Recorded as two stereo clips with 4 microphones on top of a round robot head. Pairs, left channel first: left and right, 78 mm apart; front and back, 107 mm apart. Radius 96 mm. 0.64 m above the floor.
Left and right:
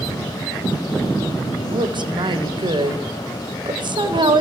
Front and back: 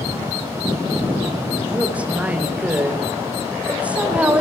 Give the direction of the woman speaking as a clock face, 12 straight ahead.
3 o'clock.